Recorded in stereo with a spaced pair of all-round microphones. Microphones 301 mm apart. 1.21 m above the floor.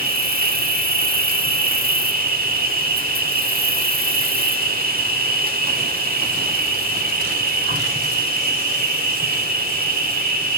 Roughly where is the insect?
Right.